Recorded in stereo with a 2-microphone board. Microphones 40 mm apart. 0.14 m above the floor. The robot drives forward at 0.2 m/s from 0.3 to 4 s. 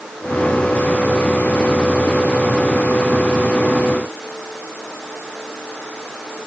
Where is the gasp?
I don't hear a gasp.